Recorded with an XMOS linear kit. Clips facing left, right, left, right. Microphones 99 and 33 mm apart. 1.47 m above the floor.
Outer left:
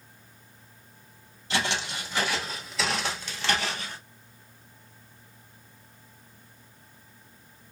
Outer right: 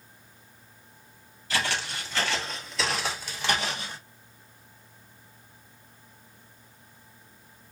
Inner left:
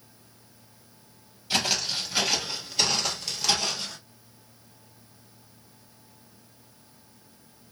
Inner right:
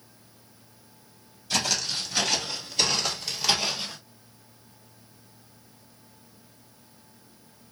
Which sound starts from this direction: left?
Footsteps, at 1.5 s.